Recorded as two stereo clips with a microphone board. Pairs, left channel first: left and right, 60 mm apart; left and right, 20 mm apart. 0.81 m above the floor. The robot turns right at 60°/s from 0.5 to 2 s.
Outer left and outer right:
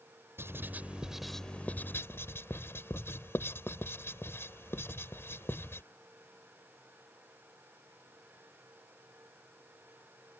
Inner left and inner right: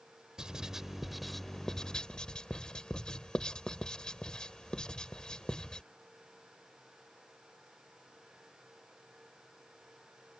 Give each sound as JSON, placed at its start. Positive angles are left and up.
{"t": 0.4, "sound": "writing", "side_deg": -45}